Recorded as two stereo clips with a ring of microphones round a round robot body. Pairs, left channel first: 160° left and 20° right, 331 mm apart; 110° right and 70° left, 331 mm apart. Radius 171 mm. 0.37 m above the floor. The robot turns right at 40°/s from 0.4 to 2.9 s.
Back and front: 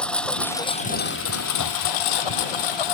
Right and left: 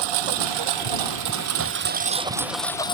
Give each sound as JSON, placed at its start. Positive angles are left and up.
{"t": 0.0, "sound": "a lawn mower", "azimuth_deg": 70}